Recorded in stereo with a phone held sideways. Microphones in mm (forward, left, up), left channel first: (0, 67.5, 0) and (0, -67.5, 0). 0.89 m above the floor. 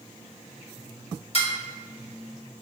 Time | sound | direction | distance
1.3 | dishes clattering | 45° left (ahead or behind) | 1.0 m